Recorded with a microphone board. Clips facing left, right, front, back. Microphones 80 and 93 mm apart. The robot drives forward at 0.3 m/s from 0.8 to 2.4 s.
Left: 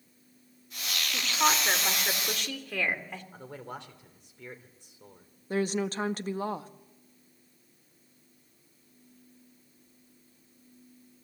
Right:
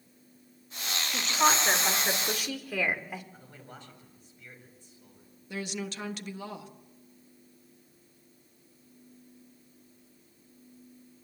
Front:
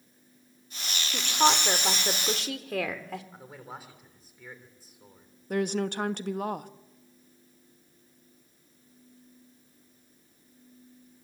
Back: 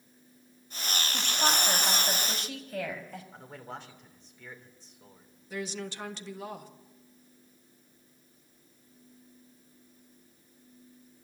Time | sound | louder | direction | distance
1.1 | a woman speaking | right 2 dB, front 6 dB | 5° right | 3.5 m
3.3 | a man speaking | left 7 dB, back 1 dB | 85° left | 3 m
5.5 | a woman speaking | left 7 dB, front 9 dB | 40° left | 1.2 m